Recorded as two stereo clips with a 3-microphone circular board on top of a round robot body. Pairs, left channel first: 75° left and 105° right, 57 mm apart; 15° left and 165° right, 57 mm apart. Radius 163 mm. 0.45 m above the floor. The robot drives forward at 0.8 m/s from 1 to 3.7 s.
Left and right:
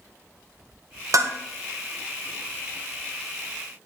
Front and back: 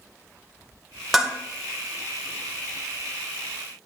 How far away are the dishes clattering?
About 2 m.